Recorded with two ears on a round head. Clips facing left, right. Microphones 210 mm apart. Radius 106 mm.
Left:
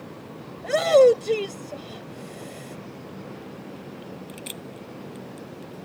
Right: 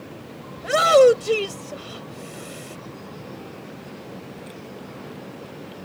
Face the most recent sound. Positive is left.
turn(degrees=-10)  # may be behind; listen again after turning